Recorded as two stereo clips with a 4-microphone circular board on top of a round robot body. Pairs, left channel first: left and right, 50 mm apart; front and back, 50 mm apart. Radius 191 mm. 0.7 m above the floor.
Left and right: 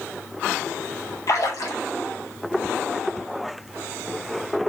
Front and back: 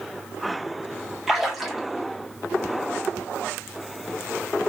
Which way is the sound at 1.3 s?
95° left.